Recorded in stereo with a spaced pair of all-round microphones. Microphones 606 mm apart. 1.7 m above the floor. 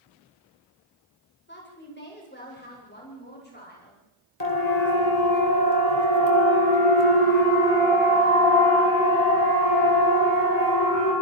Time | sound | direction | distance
1.5 | a woman speaking | 15° left (ahead or behind) | 8.5 m
4.4 | a siren | 80° left | 3 m